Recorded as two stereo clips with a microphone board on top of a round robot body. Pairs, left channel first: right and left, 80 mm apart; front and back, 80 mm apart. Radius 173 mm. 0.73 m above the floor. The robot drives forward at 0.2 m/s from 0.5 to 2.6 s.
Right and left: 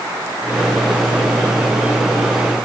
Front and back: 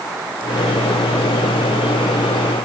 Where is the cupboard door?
I don't hear a cupboard door.